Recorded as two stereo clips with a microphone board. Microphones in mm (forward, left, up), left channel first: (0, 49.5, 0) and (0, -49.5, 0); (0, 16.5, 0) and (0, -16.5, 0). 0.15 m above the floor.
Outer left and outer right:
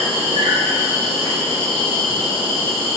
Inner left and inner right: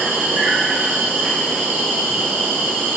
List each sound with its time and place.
0.0 s an insect: 75° right (ahead or behind), 2 m